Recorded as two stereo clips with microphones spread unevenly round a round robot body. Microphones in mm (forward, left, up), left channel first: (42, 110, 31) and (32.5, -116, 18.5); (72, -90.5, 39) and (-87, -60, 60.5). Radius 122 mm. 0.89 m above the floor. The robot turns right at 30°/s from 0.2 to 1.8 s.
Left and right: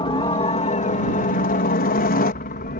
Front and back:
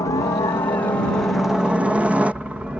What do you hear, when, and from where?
0.0 s a helicopter: 35° left; by 2.8 s 80° left